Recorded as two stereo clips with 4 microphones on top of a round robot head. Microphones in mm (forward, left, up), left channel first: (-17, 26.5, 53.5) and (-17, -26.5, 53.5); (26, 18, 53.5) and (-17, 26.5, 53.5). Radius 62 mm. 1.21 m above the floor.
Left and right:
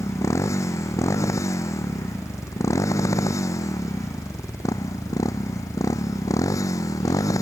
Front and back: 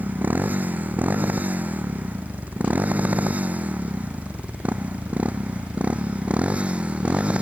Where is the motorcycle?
120° left; by 7.4 s 105° left.